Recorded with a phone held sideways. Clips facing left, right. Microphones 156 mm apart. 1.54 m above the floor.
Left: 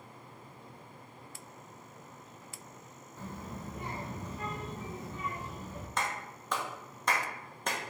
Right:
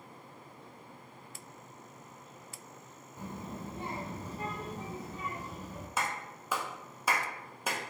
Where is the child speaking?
15° right (ahead or behind), 0.5 m; by 5.9 s 35° right (ahead or behind), 1.9 m.